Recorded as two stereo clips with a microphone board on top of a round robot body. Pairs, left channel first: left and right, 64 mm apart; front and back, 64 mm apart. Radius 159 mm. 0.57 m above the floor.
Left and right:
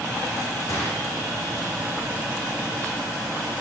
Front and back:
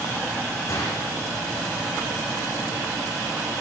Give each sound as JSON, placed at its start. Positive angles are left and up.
{"t": 0.7, "sound": "a gunshot", "azimuth_deg": 45, "distance_m": 8.5}